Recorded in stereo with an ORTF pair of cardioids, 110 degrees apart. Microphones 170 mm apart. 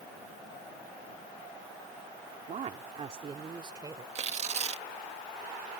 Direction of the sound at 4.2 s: 40° right.